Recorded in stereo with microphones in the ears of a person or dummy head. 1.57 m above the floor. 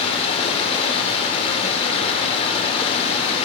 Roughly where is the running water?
Left.